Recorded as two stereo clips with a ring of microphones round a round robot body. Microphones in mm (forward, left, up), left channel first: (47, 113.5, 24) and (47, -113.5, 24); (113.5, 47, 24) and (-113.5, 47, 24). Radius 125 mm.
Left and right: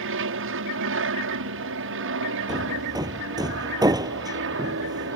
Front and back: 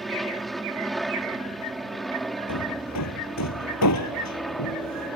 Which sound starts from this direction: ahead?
Hammering, at 2.5 s.